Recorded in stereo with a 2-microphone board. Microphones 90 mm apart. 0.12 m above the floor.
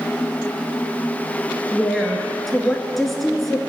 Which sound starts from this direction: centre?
A woman speaking, at 1.7 s.